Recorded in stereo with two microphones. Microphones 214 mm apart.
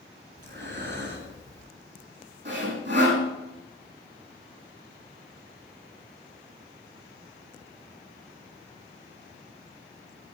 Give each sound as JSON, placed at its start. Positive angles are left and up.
{"t": 0.4, "sound": "breathing", "side_deg": -60, "distance_m": 2.5}
{"t": 2.5, "sound": "sawing", "side_deg": -55, "distance_m": 5.0}